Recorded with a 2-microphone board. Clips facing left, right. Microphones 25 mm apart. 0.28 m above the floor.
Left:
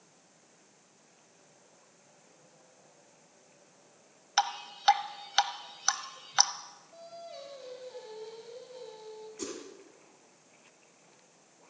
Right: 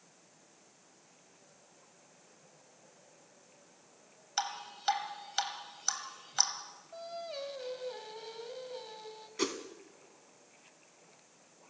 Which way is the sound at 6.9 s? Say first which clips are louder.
Right 5 dB; 35° right (ahead or behind).